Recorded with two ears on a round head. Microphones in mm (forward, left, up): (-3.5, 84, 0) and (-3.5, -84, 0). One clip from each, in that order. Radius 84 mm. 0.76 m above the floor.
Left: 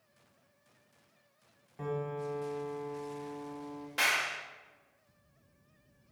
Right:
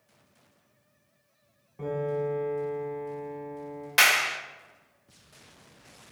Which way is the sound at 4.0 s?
50° right (ahead or behind).